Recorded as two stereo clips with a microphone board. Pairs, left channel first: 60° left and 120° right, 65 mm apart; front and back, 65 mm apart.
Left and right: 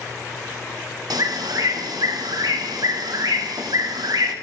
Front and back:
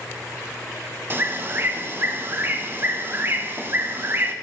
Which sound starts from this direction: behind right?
A bird, at 1.1 s.